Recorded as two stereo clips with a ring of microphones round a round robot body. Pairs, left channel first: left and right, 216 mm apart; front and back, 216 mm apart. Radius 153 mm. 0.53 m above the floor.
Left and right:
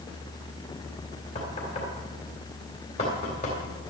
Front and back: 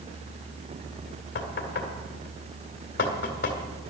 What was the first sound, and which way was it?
Knocking, 25° left.